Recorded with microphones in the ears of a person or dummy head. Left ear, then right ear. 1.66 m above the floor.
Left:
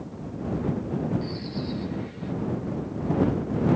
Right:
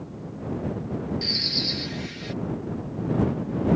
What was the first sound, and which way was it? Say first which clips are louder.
A bird: right 11 dB; 80° right.